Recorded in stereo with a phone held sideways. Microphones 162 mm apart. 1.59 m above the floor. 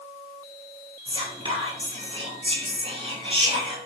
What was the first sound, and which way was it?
Whispering, 30° right (ahead or behind).